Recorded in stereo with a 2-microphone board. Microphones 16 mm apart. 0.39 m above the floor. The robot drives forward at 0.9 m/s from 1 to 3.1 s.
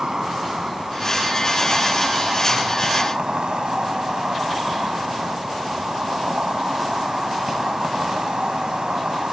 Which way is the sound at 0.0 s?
50° right (ahead or behind).